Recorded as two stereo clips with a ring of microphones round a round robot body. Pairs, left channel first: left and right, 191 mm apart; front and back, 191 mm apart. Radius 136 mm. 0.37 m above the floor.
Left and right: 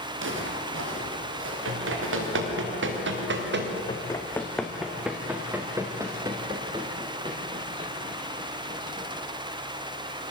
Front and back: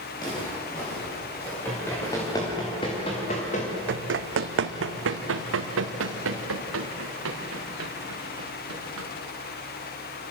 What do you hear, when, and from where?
0.1 s footsteps: 80° right, 6 m; by 2.6 s 85° right, 7 m
1.6 s running footsteps: 85° right, 5.5 m; by 3.8 s 65° right, 4 m
3.9 s running footsteps: 165° left, 1.2 m; by 9.1 s 160° right, 4 m